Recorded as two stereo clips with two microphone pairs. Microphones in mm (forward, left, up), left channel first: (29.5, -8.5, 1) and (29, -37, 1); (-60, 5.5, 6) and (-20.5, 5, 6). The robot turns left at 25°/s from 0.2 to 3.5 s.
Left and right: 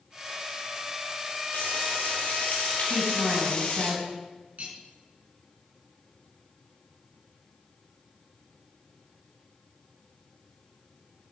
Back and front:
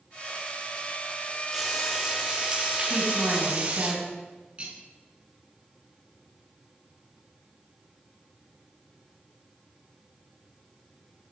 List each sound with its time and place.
1.5 s frying: 90° left, 5 m; by 3.9 s 40° left, 5 m
2.9 s a woman speaking: 15° right, 3 m; by 4.1 s 30° right, 3 m
4.6 s cutlery clinking: 60° right, 3.5 m